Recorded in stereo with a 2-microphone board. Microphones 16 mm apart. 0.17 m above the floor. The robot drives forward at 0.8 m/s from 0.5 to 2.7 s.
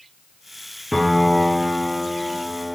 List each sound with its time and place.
0.9 s a piano: 5° left (ahead or behind), 1.6 m